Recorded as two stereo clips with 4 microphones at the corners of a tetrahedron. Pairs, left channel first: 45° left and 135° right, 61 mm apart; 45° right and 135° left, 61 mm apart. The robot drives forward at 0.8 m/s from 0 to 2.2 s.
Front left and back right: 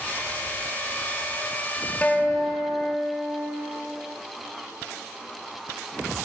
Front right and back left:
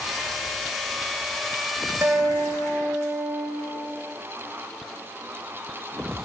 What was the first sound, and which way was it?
A guitar, 100° left.